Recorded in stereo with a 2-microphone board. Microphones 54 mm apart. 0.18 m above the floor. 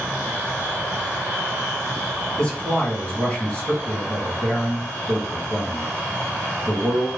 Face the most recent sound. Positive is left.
turn(degrees=15)  # may be behind; listen again after turning